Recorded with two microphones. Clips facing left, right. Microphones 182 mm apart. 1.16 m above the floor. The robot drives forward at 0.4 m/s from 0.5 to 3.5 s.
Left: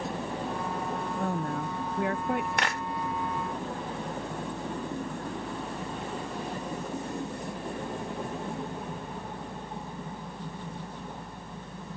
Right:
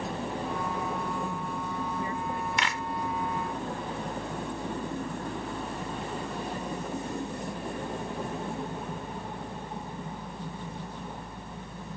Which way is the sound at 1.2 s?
75° left (ahead or behind).